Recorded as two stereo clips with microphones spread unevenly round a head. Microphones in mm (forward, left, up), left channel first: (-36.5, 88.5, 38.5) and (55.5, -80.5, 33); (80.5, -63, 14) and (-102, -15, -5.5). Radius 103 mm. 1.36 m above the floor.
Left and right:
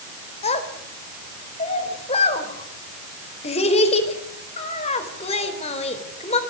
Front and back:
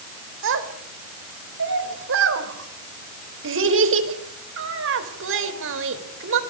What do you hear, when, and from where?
0.4 s a child speaking: straight behind, 4 m